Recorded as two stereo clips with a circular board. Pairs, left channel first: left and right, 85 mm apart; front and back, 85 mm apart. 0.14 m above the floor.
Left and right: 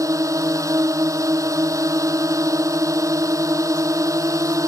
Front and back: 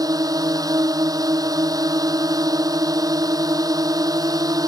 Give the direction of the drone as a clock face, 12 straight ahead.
5 o'clock.